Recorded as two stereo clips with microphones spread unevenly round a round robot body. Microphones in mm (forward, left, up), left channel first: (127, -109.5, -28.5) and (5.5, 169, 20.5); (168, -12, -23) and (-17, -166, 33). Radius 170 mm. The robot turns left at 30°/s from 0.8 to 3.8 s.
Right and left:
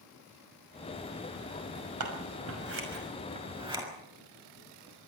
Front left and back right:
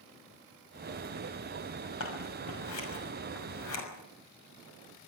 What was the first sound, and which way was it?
Scissors, 90° left.